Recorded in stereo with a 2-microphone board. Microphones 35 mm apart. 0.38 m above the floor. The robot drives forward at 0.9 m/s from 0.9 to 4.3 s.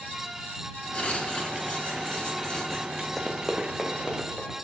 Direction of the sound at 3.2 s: 5° left (ahead or behind).